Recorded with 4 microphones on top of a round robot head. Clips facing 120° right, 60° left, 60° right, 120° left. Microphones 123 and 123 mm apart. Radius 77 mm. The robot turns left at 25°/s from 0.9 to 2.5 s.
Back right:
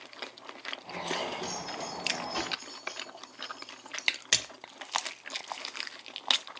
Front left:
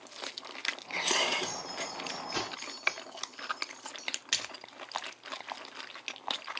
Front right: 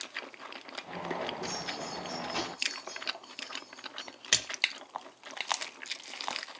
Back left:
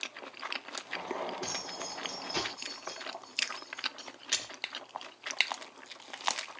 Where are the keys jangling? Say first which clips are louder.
Back right 1 dB, front right 2 dB; 95° left, 7 m; by 4.1 s 65° left, 7 m.